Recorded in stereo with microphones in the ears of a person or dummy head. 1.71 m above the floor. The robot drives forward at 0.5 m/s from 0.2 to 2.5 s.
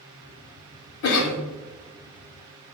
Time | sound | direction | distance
1.0 | a cough | 70° left (ahead or behind) | 0.6 m